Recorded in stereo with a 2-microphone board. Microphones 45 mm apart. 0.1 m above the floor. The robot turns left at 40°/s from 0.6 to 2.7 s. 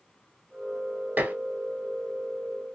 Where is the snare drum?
I don't hear a snare drum.